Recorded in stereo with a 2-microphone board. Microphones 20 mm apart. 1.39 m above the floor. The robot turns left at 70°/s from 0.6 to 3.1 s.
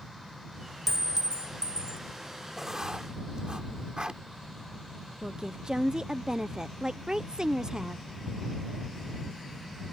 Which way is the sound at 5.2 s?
40° right (ahead or behind).